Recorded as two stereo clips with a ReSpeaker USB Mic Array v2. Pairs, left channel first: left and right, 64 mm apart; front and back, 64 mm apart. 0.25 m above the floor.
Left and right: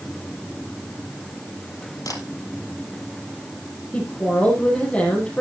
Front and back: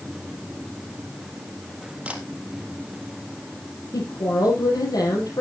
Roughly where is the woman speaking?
Ahead.